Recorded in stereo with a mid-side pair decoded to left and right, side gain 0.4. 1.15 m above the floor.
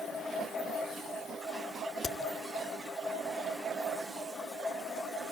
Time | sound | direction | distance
2.0 | a crack | 70° left | 2 m